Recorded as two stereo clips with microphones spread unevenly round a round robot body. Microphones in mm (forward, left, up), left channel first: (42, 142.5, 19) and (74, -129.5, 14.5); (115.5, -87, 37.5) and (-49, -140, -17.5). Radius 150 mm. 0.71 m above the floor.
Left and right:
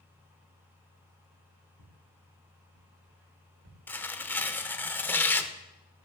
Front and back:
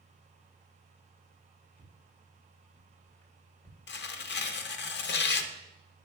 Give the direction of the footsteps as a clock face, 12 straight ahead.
2 o'clock.